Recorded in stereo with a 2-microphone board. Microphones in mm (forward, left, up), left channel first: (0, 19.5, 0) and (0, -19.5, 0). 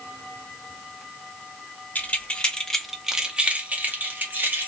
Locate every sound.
1.9 s keys jangling: 40° left (ahead or behind), 0.7 m; by 4.7 s 60° right (ahead or behind), 1.2 m